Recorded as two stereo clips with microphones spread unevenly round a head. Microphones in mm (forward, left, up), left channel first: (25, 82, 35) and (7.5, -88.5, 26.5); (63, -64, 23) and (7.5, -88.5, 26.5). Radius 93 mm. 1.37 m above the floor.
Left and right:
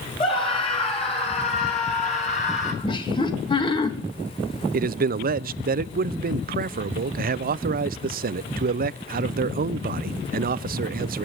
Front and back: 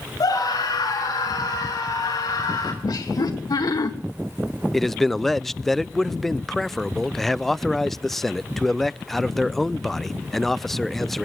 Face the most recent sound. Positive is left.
turn(degrees=-60)